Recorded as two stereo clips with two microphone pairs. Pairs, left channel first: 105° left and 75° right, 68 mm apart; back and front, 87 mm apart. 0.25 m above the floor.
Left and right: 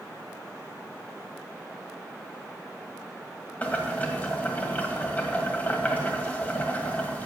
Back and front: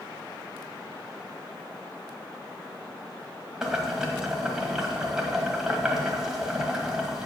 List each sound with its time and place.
3.6 s boiling: 75° left, 1.6 m